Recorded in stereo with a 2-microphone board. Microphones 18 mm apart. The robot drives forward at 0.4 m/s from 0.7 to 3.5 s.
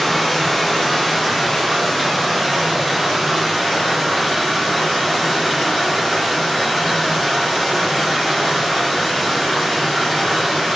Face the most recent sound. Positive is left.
turn(degrees=10)  # may be behind; listen again after turning